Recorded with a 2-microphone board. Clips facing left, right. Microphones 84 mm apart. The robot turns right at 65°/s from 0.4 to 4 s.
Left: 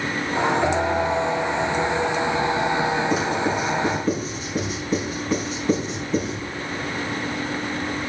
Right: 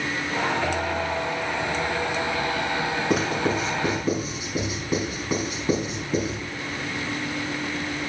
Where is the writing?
65° right (ahead or behind), 5 m; by 6.4 s 10° right (ahead or behind), 5 m.